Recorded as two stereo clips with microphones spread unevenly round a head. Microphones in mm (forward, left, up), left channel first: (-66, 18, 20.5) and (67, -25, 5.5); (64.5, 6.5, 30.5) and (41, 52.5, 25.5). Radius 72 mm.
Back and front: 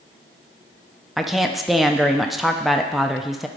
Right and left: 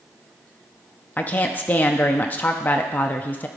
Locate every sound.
1.2 s a woman speaking: 95° right, 0.6 m